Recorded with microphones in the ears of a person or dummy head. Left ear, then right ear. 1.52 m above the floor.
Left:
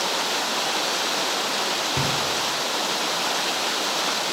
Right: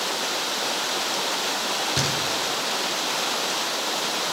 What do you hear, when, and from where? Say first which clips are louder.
2.0 s knocking: even; 55° right (ahead or behind), 5 m